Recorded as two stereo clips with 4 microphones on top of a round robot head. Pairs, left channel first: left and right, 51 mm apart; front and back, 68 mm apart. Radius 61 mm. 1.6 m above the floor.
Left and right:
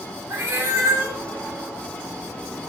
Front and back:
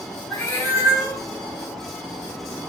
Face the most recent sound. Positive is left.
turn(degrees=-60)